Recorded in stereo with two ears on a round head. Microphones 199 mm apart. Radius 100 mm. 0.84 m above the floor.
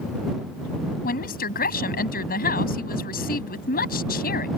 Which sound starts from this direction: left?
A woman speaking, at 1.0 s.